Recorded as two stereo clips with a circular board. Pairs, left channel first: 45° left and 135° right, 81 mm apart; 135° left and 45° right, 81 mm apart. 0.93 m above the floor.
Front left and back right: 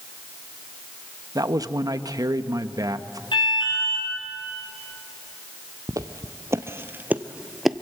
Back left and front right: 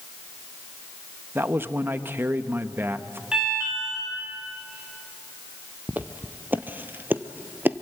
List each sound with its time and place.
1.4 s a man speaking: 105° right, 1.0 m
3.3 s an alarm: 35° left, 10 m
5.9 s footsteps: 110° right, 1.5 m; by 7.8 s 35° right, 0.9 m